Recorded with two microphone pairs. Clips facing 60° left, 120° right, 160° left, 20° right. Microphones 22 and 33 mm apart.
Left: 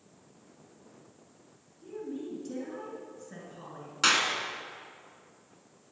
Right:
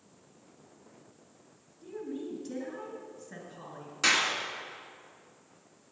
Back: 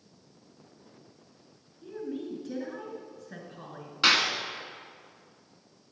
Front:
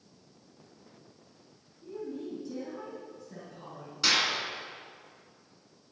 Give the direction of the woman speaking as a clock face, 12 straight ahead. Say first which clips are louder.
Even, back 2 dB; 7 o'clock.